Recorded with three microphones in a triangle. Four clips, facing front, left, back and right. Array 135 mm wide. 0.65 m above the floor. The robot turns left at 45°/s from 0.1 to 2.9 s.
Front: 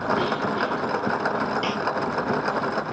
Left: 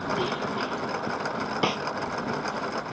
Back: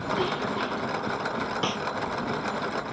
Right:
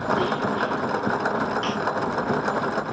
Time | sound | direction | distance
1.6 | a snare drum | 100° left | ?